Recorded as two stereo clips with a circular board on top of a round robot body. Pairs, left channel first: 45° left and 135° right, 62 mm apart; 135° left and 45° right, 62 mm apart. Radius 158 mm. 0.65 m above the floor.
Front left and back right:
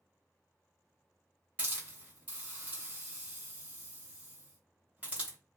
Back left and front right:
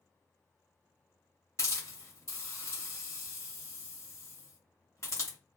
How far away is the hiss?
About 1.5 m.